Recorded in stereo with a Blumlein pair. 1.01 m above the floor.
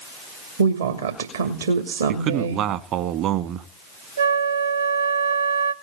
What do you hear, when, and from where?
0.6 s a woman speaking: 70° right, 2.5 m
2.1 s a man speaking: 35° right, 1.2 m
4.2 s a flute: 65° right, 1.0 m